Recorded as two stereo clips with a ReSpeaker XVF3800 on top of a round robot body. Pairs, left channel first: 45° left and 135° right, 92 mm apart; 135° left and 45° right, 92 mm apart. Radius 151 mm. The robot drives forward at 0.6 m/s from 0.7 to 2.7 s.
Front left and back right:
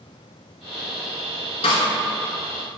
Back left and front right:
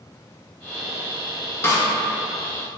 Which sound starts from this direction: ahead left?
A snare drum, at 1.6 s.